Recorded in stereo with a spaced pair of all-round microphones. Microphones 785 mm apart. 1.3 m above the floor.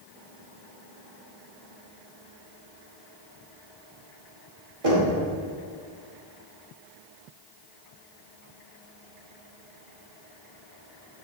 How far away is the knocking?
About 2.5 m.